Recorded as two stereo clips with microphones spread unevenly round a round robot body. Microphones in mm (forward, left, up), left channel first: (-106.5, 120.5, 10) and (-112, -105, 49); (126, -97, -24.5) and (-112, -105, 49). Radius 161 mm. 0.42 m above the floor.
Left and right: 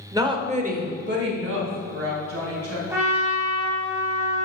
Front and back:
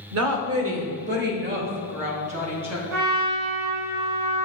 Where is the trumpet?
175° right, 3.5 m.